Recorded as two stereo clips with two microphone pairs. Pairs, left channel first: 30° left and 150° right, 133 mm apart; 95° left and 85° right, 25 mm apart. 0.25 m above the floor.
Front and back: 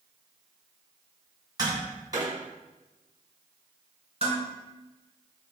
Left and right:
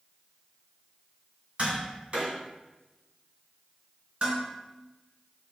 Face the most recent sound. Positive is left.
turn(degrees=-115)